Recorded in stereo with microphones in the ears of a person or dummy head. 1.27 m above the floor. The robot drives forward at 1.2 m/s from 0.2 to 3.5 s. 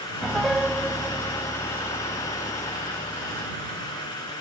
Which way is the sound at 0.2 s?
Centre (ahead or behind).